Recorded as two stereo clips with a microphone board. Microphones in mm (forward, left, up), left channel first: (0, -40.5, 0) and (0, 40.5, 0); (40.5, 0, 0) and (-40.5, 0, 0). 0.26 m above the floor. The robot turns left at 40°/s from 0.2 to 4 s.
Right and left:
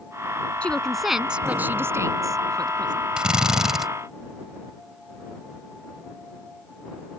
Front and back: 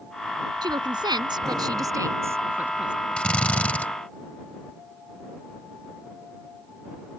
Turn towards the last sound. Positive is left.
turn(degrees=10)